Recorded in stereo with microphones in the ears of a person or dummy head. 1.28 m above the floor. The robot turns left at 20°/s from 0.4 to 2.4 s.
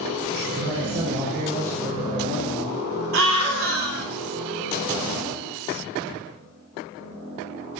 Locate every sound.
0.5 s a man speaking: 105° right, 6.5 m; by 2.8 s 145° right, 6.5 m
3.1 s a scream: 75° right (ahead or behind), 5 m